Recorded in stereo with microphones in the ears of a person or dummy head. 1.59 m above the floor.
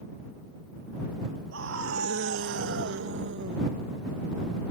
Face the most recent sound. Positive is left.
turn(degrees=-65)  # may be behind; listen again after turning